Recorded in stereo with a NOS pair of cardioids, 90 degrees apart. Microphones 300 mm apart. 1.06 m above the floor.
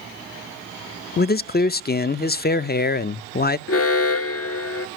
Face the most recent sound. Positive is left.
turn(degrees=50)